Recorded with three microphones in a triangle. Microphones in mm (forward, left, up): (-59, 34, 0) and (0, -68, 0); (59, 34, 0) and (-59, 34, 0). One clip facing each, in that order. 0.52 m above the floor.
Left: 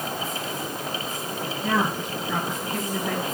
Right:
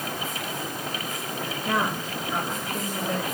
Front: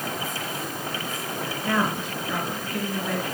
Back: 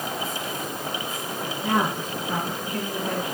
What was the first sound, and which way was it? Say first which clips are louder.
A woman speaking: left 2 dB, back 1 dB; 140° left.